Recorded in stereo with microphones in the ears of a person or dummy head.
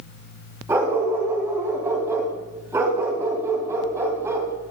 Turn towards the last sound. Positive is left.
turn(degrees=-15)  # may be behind; listen again after turning